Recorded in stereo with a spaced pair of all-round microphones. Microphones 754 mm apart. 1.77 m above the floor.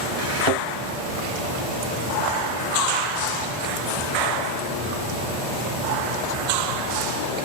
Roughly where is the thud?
Left.